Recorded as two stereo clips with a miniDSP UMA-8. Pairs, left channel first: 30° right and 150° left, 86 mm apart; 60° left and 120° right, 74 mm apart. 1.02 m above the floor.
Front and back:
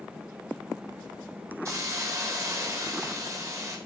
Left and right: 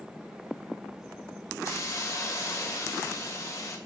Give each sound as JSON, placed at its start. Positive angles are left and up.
{"t": 1.6, "sound": "a hiss", "azimuth_deg": 105, "distance_m": 0.6}